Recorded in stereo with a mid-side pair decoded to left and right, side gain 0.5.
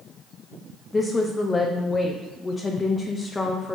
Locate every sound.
0.9 s a woman speaking: 20° left, 0.5 m